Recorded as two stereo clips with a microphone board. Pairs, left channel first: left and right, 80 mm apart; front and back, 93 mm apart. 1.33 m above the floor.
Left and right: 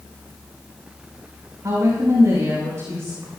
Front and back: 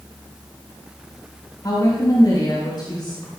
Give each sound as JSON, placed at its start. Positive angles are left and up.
{"t": 1.6, "sound": "a woman speaking", "azimuth_deg": -40, "distance_m": 4.5}